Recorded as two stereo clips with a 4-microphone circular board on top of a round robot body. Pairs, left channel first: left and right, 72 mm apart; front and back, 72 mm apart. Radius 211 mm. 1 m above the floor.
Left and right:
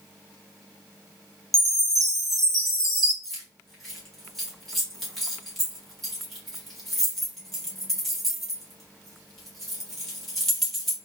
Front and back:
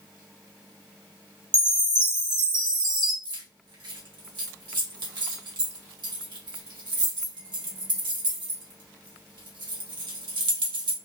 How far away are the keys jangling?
About 1.5 m.